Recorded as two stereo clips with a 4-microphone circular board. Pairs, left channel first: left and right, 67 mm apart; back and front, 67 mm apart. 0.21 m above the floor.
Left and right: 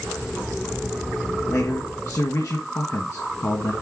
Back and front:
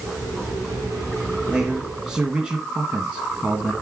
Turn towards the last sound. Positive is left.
turn(degrees=75)